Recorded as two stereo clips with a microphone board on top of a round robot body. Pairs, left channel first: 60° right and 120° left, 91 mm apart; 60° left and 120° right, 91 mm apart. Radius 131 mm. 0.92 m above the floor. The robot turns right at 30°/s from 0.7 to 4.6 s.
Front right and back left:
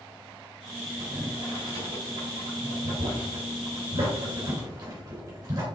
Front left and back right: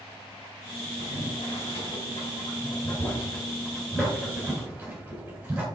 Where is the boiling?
60° left, 4 m; by 5.7 s 165° left, 4 m.